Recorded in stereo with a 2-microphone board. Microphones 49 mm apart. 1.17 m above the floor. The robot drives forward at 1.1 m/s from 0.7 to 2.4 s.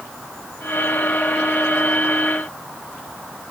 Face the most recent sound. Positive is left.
No sound to turn to.